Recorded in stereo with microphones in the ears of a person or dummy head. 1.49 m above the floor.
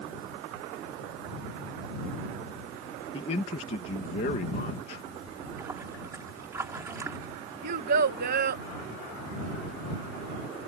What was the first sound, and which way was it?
A man speaking, 40° left (ahead or behind).